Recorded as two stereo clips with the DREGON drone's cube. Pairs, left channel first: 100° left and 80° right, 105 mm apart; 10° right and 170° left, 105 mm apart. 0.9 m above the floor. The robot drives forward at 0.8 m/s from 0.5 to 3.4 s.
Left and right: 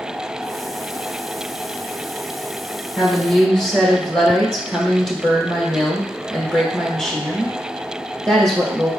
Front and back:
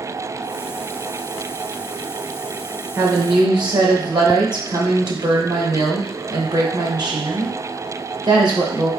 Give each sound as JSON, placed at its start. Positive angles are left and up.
{"t": 3.0, "sound": "a woman speaking", "azimuth_deg": -175, "distance_m": 0.7}